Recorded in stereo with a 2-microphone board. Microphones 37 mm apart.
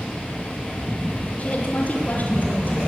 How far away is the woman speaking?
About 5 m.